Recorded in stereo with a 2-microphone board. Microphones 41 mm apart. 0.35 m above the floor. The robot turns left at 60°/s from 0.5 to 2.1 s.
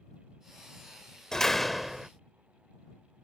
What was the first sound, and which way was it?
A door slam, 30° left.